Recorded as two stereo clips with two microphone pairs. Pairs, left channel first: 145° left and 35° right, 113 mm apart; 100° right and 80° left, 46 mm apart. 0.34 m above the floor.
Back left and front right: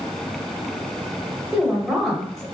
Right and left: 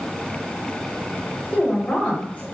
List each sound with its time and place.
1.5 s a woman speaking: 135° right, 1.2 m